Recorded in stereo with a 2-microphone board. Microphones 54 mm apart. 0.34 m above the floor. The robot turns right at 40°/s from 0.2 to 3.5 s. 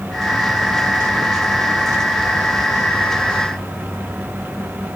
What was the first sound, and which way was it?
Only background noise.